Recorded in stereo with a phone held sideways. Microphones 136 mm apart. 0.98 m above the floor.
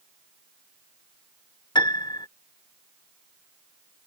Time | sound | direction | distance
1.8 | a piano | 35° left (ahead or behind) | ?